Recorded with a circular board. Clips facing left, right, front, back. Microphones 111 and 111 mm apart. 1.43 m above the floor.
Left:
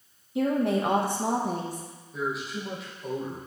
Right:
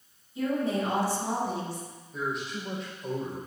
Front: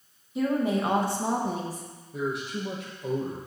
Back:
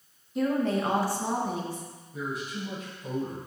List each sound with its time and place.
0.3 s a woman speaking: 90° left, 1.1 m; by 1.9 s 45° left, 1.2 m
2.1 s a man speaking: straight ahead, 1.8 m